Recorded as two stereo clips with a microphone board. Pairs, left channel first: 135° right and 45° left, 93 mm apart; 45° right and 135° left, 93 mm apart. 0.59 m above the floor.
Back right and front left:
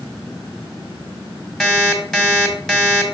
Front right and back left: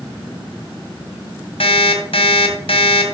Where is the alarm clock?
50° right, 1.6 m.